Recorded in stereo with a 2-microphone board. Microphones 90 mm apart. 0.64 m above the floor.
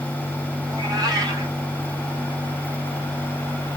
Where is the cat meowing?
45° right (ahead or behind), 1.5 m.